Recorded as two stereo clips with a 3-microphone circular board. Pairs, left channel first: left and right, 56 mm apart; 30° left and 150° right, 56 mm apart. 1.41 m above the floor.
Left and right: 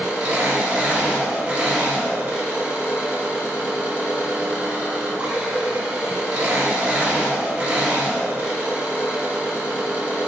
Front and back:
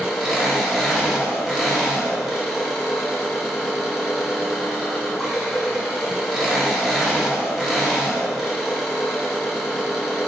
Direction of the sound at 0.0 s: 50° right.